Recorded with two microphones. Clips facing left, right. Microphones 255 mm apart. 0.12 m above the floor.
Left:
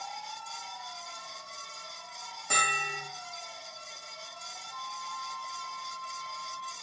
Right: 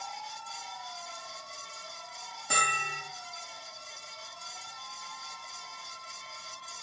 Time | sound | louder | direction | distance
2.5 | a bell | left 1 dB | 10° right (ahead or behind) | 2 m
4.7 | a flute | left 5 dB | 20° right (ahead or behind) | 1.6 m